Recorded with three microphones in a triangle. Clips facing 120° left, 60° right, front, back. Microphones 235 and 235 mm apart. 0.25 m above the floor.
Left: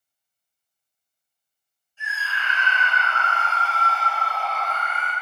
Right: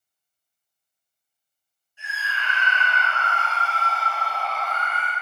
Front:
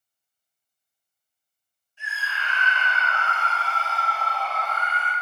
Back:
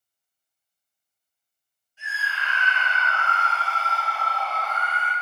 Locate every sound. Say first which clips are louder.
2.0 s a scream: left 1 dB, even; 110° right, 1.3 m